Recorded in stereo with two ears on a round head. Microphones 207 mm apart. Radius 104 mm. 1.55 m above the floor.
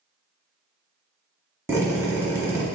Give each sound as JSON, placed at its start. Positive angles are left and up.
{"t": 1.7, "sound": "a drill", "side_deg": -10, "distance_m": 1.1}